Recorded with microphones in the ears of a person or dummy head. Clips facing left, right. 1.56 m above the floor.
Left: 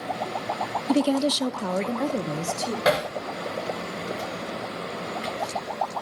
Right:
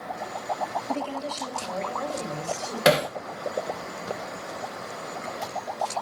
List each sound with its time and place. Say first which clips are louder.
0.9 s a woman speaking: left 9 dB; 40° left (ahead or behind), 0.6 m
2.9 s hammering: right 3 dB; 35° right (ahead or behind), 0.8 m